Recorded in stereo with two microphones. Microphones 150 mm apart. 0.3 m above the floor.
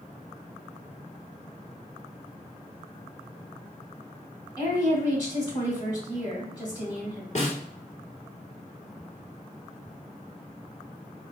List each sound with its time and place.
4.6 s a woman speaking: 30° left (ahead or behind), 1.5 m
7.3 s a snare drum: 50° left (ahead or behind), 1.1 m